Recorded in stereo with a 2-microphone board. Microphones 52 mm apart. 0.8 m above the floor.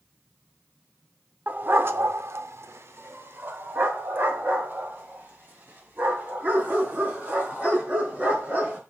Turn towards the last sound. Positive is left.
turn(degrees=-30)  # may be behind; listen again after turning